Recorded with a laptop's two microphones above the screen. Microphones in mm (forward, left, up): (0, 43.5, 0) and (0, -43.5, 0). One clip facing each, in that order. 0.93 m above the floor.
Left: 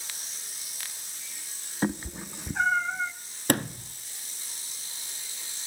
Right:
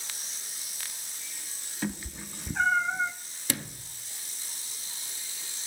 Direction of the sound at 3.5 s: 55° left (ahead or behind).